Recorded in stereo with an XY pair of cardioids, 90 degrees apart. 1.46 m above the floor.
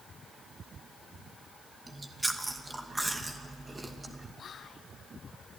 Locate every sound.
1.9 s chewing: 20° right, 2 m
4.4 s whispering: 60° left, 0.6 m